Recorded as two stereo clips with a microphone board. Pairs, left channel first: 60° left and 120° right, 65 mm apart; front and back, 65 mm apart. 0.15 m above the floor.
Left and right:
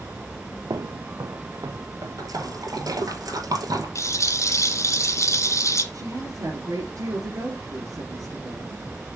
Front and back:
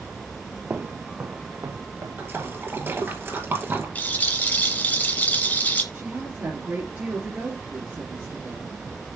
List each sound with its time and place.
0.7 s footsteps: 115° right, 0.6 m; by 3.0 s 145° right, 2.5 m
2.2 s a splash: 125° right, 1.8 m
4.0 s a rattle: 55° left, 2 m
5.9 s a woman speaking: 135° right, 3 m